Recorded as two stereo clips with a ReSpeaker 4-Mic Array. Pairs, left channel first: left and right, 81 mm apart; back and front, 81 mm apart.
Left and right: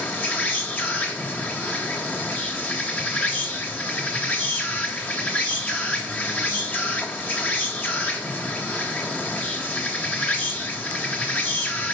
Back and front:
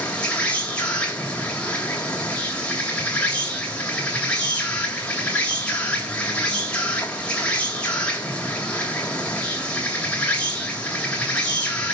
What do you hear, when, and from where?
0.0 s an insect: 130° left, 2 m